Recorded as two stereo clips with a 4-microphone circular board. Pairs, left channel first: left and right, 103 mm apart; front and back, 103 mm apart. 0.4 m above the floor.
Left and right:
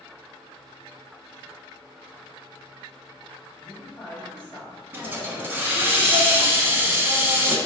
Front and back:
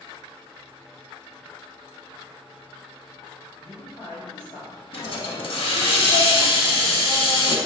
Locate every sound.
3.6 s a man speaking: 15° left, 2.0 m
4.9 s a hiss: 25° right, 0.5 m